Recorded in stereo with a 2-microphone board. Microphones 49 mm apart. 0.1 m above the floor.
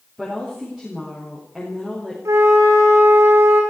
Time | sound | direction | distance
0.2 | a woman speaking | 5° right (ahead or behind) | 7 m
2.2 | a flute | 80° right | 5 m